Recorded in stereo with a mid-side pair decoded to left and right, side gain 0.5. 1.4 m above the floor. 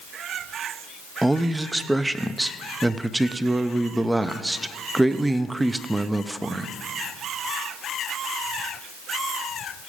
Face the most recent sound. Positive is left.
turn(degrees=-10)